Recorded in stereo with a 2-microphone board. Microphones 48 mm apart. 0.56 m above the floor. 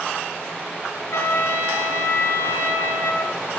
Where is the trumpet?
65° left (ahead or behind), 1.7 m.